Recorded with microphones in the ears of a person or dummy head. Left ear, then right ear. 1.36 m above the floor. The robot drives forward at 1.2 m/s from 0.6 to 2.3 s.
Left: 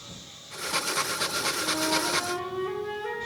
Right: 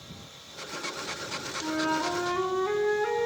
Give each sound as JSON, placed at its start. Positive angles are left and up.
{"t": 1.6, "sound": "a flute", "side_deg": -55, "distance_m": 1.6}